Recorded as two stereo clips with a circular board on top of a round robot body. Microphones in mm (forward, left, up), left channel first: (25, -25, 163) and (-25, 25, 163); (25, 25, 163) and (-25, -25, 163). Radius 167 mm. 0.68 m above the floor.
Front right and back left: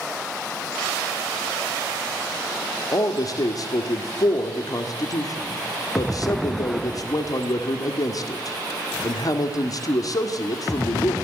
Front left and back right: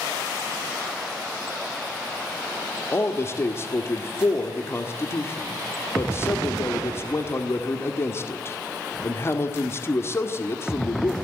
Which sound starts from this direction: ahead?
A man speaking, at 2.9 s.